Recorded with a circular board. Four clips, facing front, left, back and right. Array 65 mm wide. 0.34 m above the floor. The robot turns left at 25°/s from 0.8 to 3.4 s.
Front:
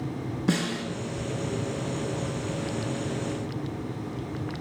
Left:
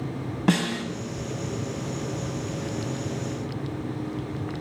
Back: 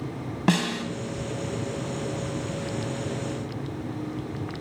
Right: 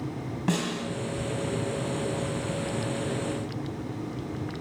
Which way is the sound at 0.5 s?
155° left.